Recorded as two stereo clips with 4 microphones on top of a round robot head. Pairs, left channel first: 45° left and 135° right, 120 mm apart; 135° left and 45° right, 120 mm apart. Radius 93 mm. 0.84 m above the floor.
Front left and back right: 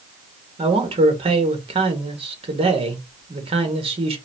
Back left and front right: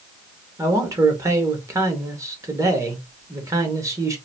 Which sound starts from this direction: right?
A man speaking, at 0.6 s.